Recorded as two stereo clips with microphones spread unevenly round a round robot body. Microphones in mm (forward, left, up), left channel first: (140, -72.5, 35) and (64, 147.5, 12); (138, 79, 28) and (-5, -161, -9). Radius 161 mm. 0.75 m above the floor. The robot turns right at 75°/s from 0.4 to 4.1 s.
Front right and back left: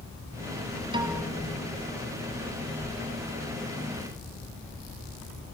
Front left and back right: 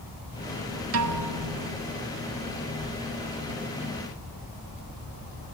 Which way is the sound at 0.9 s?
175° right.